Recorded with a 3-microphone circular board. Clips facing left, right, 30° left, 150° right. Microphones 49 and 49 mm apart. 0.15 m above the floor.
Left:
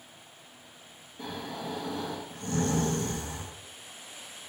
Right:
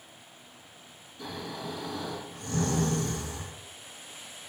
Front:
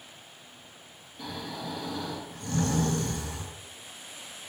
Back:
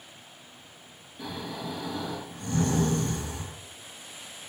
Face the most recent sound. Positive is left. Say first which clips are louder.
# left 1 dB, back 1 dB
turn(degrees=140)